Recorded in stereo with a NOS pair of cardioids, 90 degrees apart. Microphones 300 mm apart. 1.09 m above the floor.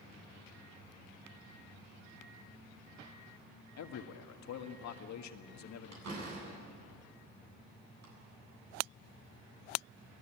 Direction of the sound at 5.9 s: 60° right.